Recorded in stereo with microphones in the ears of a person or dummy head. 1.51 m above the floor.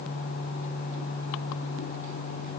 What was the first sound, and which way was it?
Only background noise.